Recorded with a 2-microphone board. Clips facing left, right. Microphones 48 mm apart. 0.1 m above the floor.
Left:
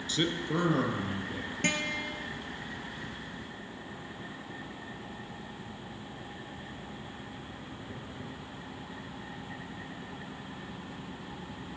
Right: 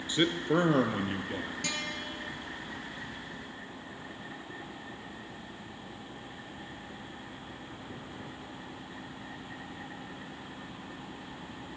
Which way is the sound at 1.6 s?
40° left (ahead or behind).